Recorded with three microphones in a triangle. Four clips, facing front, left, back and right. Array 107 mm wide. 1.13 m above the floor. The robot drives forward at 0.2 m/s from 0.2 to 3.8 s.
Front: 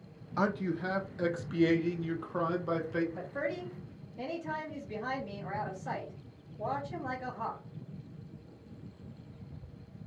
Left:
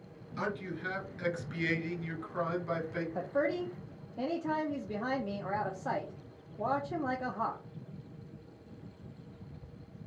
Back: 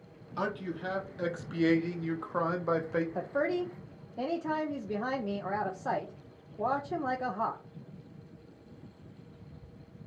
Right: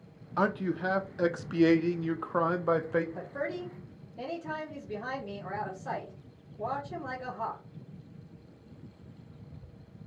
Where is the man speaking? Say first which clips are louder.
Right 8 dB, front 3 dB; 70° right, 0.6 m; by 3.0 s 120° right, 0.7 m.